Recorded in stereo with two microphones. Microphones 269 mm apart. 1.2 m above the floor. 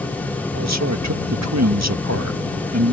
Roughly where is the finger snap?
No finger snap in this recording.